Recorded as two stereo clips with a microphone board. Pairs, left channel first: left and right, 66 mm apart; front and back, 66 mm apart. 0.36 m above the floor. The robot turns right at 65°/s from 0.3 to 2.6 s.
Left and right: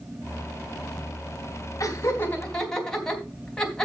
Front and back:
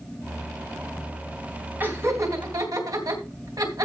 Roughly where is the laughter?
Behind left.